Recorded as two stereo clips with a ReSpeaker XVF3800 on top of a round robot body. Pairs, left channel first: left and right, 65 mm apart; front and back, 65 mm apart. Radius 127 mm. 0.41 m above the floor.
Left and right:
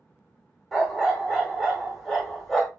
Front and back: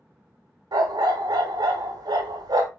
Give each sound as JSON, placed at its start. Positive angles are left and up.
{"t": 0.7, "sound": "a dog barking", "azimuth_deg": 180, "distance_m": 0.8}